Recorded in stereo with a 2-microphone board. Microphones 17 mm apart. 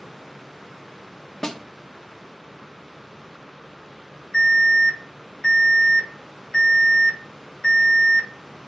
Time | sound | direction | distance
1.4 | a snare drum | 40° left (ahead or behind) | 1.2 m
4.3 | an alarm | 60° left (ahead or behind) | 5.5 m